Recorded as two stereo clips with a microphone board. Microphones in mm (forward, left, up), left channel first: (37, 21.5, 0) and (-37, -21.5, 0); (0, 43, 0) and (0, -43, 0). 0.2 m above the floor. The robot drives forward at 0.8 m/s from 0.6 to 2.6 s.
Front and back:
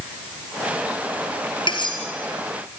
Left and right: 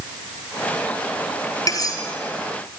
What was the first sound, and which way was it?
Cutlery clinking, 45° left.